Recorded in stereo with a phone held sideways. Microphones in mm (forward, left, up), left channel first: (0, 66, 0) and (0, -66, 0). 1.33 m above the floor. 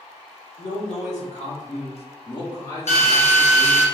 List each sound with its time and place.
0.6 s a man speaking: 65° left (ahead or behind), 1.1 m; by 3.9 s centre (ahead or behind), 1.2 m
2.9 s a drill: 65° left (ahead or behind), 0.9 m